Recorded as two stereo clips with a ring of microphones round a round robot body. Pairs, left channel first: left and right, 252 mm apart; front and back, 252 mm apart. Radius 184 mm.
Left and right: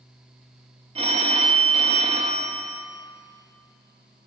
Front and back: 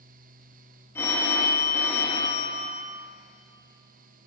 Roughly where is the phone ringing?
Ahead right.